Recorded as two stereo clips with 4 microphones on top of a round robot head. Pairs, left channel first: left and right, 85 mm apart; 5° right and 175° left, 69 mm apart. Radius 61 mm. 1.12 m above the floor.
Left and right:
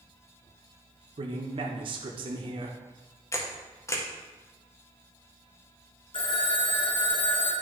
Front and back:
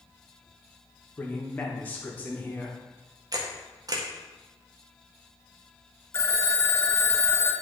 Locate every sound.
1.2 s a man speaking: 75° right, 1.1 m
3.3 s a camera shutter: 145° left, 1.4 m
6.1 s a phone ringing: 45° left, 1.0 m